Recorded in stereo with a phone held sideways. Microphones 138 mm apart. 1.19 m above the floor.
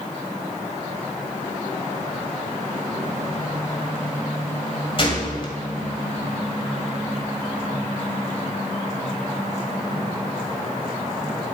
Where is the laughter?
I don't hear laughter.